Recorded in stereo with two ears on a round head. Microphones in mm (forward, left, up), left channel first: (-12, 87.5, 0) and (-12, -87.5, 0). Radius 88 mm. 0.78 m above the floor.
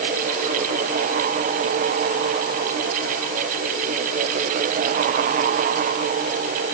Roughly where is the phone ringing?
No phone ringing in this recording.